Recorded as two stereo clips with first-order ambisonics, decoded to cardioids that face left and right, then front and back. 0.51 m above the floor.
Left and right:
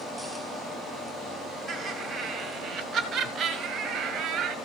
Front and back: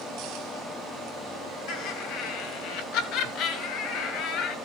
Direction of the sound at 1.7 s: Straight ahead.